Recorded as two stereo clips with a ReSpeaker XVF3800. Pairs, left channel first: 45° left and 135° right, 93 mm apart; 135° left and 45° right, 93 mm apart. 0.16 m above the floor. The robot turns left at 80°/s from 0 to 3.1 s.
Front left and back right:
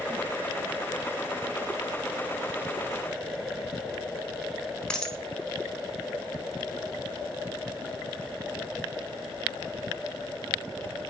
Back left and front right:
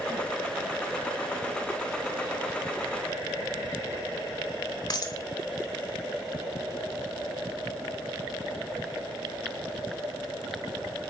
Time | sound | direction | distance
4.9 | a dropped coin | 125° left | 0.6 m